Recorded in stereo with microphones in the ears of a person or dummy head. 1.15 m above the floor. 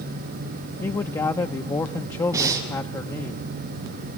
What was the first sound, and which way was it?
A man speaking, 15° left (ahead or behind).